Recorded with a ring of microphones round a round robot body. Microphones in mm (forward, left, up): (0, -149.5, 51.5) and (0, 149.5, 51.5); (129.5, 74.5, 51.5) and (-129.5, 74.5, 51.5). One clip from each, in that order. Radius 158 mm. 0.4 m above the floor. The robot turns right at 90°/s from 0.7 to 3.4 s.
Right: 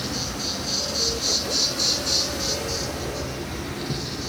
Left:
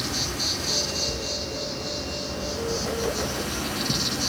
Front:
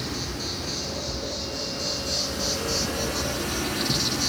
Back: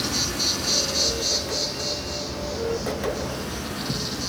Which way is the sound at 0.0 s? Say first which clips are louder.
Left 2 dB, back 7 dB; 175° left.